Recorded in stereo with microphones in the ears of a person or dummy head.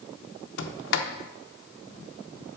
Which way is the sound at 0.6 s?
60° left (ahead or behind).